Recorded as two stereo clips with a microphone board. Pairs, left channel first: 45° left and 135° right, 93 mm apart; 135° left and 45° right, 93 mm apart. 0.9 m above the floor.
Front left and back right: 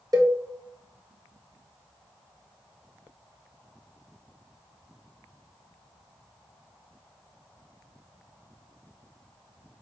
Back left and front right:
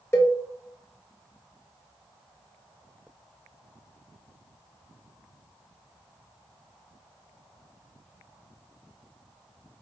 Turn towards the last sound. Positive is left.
turn(degrees=-170)